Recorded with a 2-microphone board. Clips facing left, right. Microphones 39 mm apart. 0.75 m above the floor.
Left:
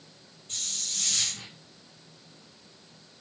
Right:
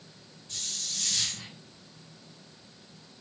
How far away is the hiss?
About 5 m.